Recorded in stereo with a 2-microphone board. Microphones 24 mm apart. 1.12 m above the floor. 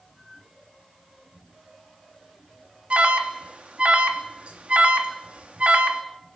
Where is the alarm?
60° right (ahead or behind), 2.5 m.